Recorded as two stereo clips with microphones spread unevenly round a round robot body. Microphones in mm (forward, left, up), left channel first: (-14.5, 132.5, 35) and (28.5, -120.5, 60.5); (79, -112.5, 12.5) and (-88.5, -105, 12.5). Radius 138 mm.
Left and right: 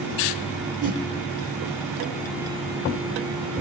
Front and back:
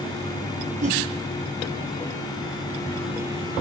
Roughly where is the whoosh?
Behind right.